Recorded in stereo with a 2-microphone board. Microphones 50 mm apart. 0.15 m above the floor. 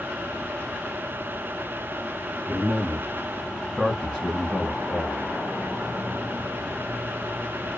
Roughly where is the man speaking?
Centre.